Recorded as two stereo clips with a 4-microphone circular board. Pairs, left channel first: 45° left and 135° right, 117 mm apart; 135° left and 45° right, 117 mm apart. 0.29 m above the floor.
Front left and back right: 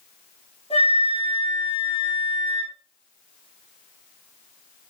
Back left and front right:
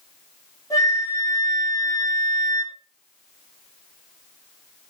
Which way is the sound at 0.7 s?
75° left.